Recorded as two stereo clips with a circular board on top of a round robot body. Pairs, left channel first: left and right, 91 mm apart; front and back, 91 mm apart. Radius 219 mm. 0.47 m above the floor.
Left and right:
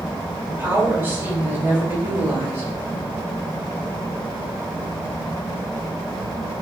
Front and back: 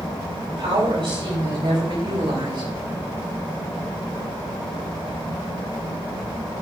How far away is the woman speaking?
About 4 m.